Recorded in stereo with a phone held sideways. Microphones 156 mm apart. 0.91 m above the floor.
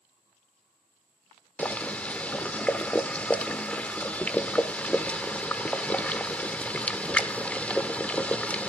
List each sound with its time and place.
1.6 s boiling: 10° left (ahead or behind), 1.0 m